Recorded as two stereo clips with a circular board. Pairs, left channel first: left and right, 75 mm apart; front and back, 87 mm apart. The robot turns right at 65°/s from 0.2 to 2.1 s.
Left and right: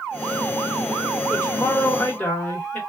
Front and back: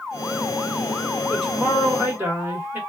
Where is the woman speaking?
80° left, 1.6 m; by 2.8 s 135° left, 1.6 m.